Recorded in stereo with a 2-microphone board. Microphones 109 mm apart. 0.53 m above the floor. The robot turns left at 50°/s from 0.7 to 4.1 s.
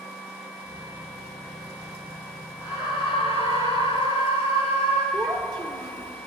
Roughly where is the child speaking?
Right.